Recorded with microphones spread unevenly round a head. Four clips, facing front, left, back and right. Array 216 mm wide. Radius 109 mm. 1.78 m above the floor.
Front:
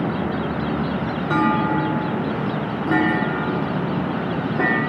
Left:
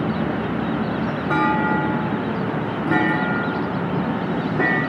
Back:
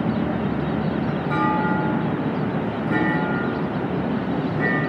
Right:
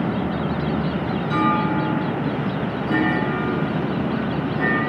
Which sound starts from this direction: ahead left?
A clunk, at 1.3 s.